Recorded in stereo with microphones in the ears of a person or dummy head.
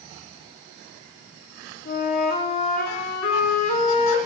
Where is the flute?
50° left (ahead or behind), 1.5 m.